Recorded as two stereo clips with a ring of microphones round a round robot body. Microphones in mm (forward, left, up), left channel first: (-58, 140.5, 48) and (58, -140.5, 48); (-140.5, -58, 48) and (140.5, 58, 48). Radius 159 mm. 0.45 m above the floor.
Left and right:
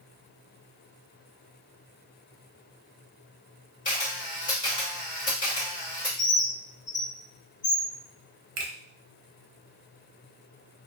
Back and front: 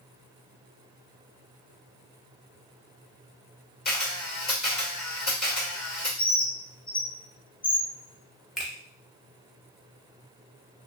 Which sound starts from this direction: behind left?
A bird, at 6.2 s.